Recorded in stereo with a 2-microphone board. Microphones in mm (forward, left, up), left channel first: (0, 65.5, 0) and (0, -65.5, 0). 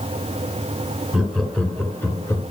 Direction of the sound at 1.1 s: Centre (ahead or behind).